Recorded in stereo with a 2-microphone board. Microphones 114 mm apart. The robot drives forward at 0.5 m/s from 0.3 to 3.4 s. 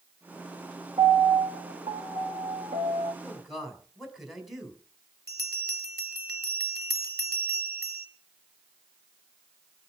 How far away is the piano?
About 2 m.